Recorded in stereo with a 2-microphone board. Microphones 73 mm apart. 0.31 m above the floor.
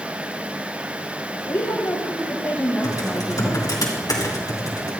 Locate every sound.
1.5 s a woman speaking: 45° left (ahead or behind), 1.3 m; by 3.6 s centre (ahead or behind), 1.8 m
2.8 s typing on a keyboard: 60° left (ahead or behind), 2.5 m